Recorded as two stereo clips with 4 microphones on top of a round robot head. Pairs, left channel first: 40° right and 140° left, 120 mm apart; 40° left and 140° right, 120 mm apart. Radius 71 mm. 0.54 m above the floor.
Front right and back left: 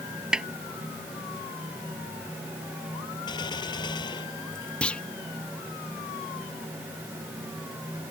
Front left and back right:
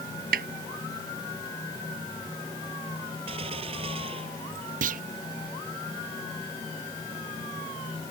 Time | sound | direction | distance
0.3 | a snare drum | 135° right | ?
3.3 | a gunshot | 95° right | ?
4.8 | a clunk | 120° right | ?